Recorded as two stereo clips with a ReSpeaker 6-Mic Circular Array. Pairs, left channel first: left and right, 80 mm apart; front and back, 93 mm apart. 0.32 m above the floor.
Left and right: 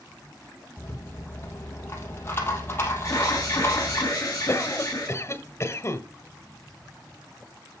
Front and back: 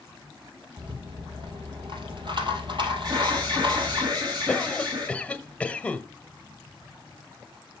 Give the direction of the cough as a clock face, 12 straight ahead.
10 o'clock.